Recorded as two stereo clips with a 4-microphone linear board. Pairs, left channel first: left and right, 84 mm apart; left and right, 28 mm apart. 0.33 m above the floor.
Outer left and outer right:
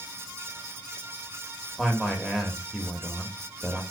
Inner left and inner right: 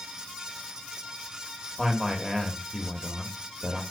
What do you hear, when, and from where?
1.8 s a man speaking: centre (ahead or behind), 0.9 m